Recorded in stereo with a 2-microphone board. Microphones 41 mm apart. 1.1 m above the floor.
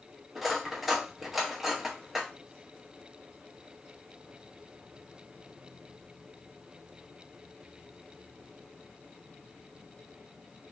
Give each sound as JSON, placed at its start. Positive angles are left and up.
{"t": 0.3, "sound": "cutlery clinking", "side_deg": -5, "distance_m": 0.6}